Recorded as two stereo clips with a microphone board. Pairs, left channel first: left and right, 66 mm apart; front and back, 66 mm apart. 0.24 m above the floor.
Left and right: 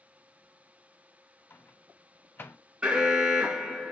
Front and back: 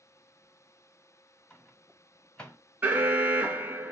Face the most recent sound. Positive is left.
turn(degrees=-145)